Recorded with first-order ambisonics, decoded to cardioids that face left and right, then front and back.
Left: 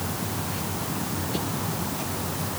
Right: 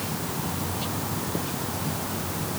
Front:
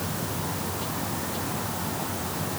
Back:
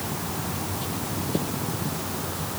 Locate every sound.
Only background noise.